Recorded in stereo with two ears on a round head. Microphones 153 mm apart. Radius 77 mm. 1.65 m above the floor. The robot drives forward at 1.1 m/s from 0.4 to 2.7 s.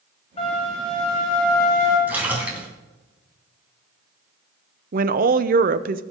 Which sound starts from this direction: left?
A flute, at 0.4 s.